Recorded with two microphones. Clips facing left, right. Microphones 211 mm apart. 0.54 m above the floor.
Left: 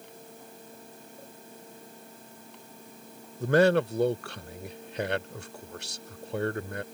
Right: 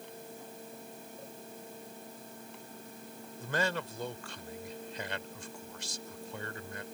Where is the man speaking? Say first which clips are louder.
Left 13 dB; 65° left (ahead or behind).